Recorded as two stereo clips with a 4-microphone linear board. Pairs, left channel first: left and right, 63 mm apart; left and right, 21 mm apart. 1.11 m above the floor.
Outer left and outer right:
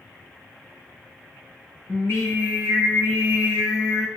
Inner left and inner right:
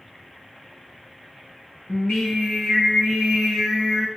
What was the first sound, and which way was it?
Singing, 40° left (ahead or behind).